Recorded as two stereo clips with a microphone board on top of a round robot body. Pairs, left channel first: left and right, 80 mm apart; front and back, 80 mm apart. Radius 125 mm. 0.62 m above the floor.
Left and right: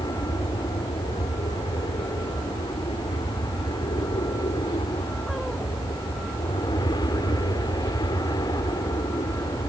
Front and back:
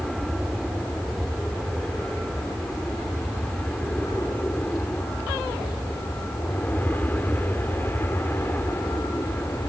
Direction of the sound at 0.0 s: 85° left.